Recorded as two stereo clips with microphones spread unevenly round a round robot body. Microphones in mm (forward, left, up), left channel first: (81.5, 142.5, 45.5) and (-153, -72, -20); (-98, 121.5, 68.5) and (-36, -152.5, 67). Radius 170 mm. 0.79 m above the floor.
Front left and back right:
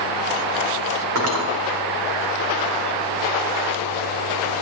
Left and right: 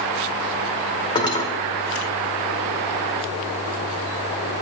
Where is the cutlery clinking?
Straight behind, 1.8 m.